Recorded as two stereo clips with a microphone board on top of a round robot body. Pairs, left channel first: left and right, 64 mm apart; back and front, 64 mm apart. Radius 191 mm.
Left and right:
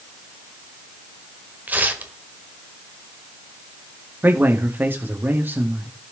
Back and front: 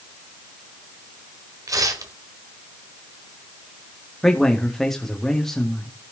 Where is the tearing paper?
25° right, 1.4 m.